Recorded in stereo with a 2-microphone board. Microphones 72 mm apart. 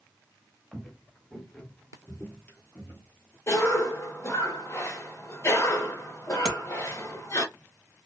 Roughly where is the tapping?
Centre.